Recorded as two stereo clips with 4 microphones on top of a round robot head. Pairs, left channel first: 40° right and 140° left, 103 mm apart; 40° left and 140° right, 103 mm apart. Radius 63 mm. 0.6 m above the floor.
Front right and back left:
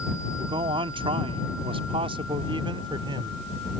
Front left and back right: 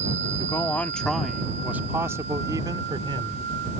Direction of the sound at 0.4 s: 105° left.